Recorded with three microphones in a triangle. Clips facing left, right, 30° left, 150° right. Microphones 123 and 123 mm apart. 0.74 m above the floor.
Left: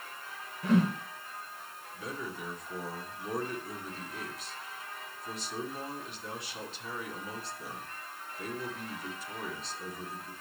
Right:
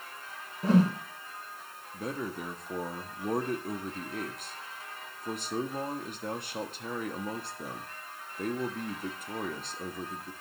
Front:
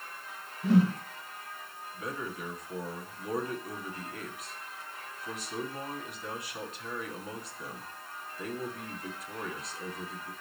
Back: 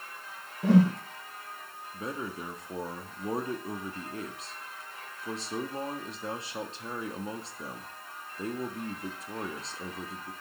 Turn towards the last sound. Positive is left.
turn(degrees=-95)